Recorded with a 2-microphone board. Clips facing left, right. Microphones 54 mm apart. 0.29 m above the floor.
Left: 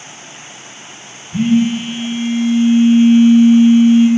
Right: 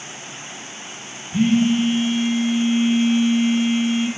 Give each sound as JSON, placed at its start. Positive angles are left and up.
{"t": 1.3, "sound": "a phone buzzing", "side_deg": 5, "distance_m": 0.7}